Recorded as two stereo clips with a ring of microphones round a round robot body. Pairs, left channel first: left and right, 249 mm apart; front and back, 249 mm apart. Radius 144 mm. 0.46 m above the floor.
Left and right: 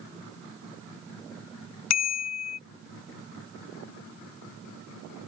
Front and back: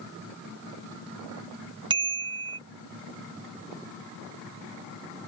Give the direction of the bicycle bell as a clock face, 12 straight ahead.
8 o'clock.